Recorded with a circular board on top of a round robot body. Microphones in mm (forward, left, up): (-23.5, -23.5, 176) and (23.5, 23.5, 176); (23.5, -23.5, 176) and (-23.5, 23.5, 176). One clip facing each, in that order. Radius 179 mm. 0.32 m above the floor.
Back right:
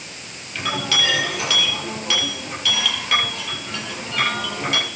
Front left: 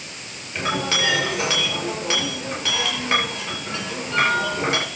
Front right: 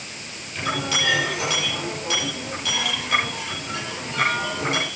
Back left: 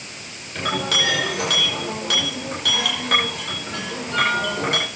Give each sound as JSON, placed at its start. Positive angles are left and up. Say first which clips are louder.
{"t": 0.6, "sound": "a clink", "louder": "front left 1 dB, back left 2 dB", "azimuth_deg": 105, "distance_m": 10.0}